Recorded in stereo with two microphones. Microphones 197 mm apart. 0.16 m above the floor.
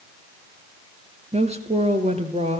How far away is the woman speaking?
About 2.5 m.